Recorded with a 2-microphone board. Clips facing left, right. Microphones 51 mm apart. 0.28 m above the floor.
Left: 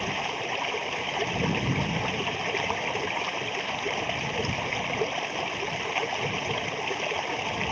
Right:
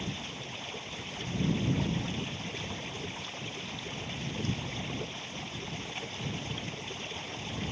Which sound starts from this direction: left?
Running water, at 0.0 s.